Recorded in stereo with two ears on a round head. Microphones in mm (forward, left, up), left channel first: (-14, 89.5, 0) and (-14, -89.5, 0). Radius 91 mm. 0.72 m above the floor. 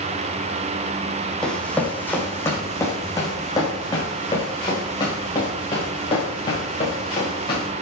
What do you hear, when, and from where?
1.4 s running footsteps: 5° left (ahead or behind), 1.9 m; by 7.7 s 25° left (ahead or behind), 6 m